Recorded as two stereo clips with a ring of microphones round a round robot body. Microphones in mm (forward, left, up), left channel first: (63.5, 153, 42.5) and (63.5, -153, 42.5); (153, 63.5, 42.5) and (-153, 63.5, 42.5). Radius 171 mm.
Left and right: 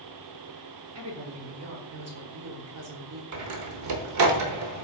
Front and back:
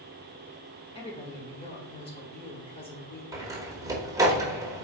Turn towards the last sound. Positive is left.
turn(degrees=-100)